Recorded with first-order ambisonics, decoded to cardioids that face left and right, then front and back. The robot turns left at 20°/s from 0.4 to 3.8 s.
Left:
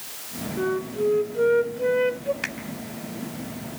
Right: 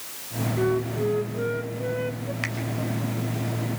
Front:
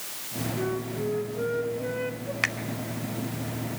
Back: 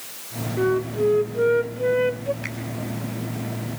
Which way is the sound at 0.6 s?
Straight behind.